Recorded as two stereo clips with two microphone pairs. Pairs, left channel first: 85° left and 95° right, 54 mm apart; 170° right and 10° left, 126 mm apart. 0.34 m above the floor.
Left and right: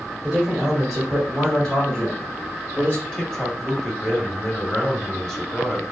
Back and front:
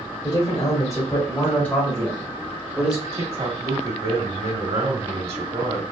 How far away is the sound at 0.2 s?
About 1.7 m.